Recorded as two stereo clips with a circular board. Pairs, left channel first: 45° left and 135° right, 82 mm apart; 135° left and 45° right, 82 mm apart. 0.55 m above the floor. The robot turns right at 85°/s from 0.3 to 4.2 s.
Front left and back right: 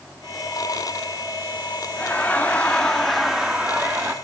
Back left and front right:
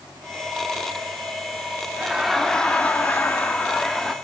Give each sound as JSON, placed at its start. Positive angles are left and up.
{"t": 1.9, "sound": "laughter", "azimuth_deg": 25, "distance_m": 1.2}